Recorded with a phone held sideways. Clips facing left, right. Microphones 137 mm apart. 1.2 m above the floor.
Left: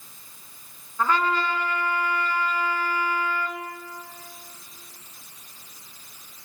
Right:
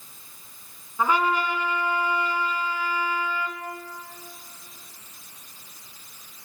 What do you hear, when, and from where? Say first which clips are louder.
1.0 s a trumpet: right 1 dB; 10° right (ahead or behind), 3 m